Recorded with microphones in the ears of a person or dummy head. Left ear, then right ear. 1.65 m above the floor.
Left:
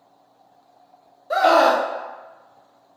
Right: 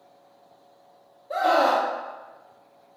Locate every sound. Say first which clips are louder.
1.3 s a scream: left 5 dB; 45° left (ahead or behind), 0.6 m